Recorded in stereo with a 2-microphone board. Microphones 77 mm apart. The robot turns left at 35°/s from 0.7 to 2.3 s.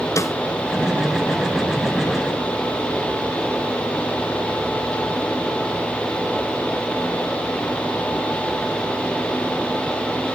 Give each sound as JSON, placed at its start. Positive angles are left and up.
{"t": 0.2, "sound": "a snare drum", "side_deg": 40, "distance_m": 1.2}